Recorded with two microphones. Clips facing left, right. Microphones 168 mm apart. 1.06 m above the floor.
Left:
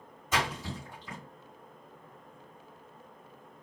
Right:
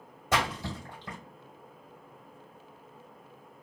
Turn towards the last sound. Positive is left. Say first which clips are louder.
# right 2 dB
turn(degrees=-65)  # may be behind; listen again after turning